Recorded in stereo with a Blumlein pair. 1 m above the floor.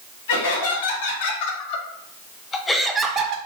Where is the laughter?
60° left, 1.8 m; by 3.4 s 40° right, 0.5 m.